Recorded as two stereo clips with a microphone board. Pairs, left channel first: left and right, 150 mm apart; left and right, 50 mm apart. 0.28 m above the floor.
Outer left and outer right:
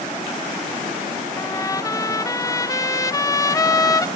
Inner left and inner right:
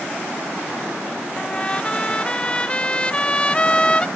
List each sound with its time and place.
1.4 s a trumpet: 20° left (ahead or behind), 0.5 m